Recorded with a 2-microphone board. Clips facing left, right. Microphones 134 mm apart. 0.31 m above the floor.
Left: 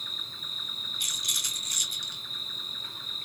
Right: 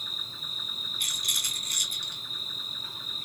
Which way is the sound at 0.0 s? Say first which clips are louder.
Right 1 dB; 10° right (ahead or behind).